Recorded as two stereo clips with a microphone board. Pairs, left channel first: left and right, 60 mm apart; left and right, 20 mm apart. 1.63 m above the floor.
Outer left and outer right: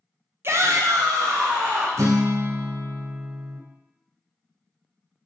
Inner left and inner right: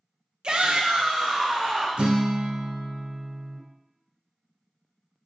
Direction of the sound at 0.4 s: 40° right (ahead or behind).